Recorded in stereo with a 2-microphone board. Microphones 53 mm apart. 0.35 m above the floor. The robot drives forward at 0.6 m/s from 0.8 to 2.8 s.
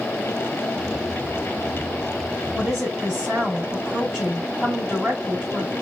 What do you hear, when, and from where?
2.5 s a woman speaking: 10° right (ahead or behind), 1.7 m